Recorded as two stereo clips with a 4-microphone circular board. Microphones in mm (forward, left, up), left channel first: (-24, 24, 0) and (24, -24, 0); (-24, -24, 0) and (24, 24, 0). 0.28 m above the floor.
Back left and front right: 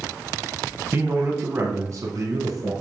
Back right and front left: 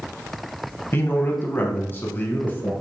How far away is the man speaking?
About 1.3 m.